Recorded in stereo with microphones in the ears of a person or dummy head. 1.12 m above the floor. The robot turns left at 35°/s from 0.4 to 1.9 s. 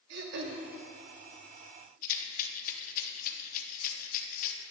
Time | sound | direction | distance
0.1 | throat clearing | 65° right (ahead or behind) | 1.1 m
2.0 | a rattle | 50° left (ahead or behind) | 1.0 m